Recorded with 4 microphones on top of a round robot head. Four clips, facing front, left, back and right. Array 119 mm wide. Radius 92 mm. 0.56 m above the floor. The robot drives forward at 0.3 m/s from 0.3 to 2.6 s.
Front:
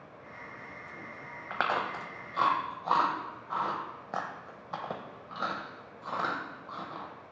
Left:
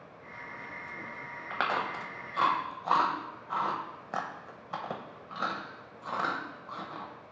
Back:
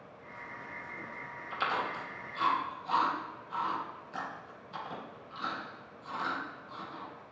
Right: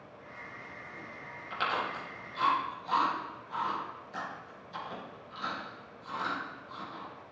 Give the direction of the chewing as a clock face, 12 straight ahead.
11 o'clock.